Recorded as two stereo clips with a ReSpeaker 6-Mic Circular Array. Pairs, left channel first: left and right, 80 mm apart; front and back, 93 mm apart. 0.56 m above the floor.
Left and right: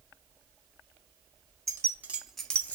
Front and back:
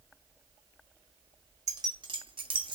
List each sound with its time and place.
1.7 s keys jangling: 135° right, 0.8 m; by 2.8 s 155° left, 0.8 m